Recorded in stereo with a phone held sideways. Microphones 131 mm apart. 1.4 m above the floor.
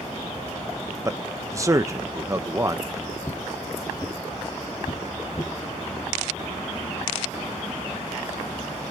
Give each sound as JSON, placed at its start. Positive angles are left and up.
{"t": 1.1, "sound": "a man speaking", "side_deg": -25, "distance_m": 0.9}
{"t": 3.2, "sound": "footsteps", "side_deg": 15, "distance_m": 2.0}